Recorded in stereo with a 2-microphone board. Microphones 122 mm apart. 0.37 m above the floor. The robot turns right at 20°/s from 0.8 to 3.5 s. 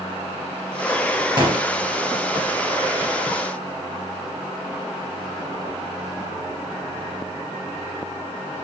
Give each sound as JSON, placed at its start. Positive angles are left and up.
{"t": 1.4, "sound": "a gunshot", "side_deg": -35, "distance_m": 3.0}